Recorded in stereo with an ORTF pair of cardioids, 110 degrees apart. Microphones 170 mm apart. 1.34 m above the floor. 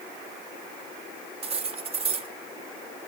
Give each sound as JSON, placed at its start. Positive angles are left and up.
{"t": 1.4, "sound": "cutlery clinking", "azimuth_deg": -35, "distance_m": 1.6}